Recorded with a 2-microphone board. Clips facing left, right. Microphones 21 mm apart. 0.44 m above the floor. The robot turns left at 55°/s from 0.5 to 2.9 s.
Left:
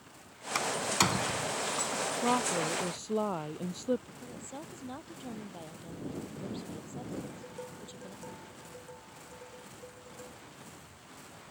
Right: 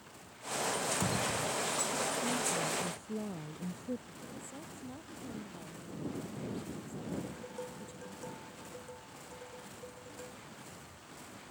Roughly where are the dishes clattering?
Centre.